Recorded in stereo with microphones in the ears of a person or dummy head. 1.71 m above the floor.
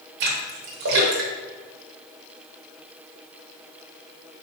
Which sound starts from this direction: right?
A splash, at 0.2 s.